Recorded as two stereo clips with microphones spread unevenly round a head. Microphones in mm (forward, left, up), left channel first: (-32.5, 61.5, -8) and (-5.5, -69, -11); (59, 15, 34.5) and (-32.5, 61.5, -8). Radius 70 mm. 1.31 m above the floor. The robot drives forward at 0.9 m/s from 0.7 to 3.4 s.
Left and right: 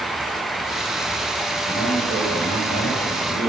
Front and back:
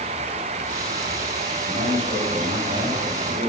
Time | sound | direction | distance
1.6 | a man speaking | 125° left | 7.5 m